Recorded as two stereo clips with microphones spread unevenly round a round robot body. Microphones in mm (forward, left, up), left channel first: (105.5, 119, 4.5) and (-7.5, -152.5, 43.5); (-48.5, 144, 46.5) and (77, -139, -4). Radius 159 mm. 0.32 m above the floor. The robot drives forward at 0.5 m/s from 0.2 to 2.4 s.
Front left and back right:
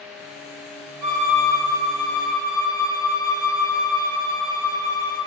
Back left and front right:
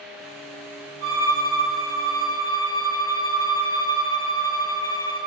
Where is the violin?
160° right, 1.4 m; by 5.2 s 165° right, 2 m.